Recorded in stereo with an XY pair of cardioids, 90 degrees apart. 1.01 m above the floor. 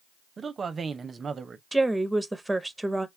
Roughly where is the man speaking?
Ahead right.